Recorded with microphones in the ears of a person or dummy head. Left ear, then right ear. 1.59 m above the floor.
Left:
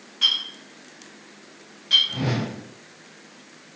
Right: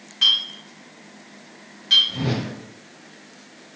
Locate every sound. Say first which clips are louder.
0.2 s a clink: right 3 dB; 15° right (ahead or behind), 1.1 m
2.1 s a whoosh: even; 10° left (ahead or behind), 1.2 m